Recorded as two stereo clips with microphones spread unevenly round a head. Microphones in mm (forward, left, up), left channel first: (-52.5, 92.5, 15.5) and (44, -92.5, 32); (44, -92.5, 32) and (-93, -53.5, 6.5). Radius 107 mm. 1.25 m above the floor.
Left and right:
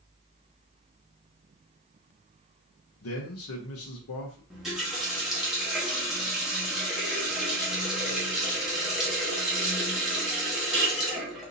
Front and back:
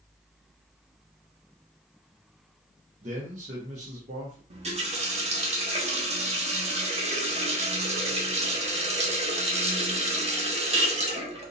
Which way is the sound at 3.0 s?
120° left.